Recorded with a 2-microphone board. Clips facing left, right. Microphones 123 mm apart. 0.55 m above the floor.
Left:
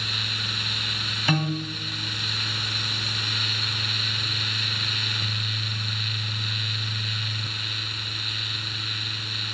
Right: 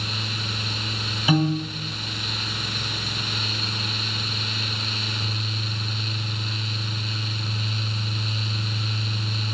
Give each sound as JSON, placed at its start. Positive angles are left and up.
{"t": 1.3, "sound": "a piano", "side_deg": -5, "distance_m": 2.0}